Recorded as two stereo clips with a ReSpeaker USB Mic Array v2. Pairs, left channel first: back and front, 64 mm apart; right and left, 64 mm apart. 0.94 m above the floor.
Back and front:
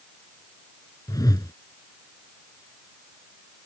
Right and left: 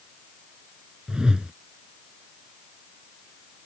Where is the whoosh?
170° left.